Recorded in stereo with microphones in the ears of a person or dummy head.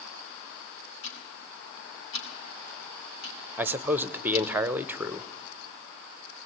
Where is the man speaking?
10° right (ahead or behind), 0.8 m.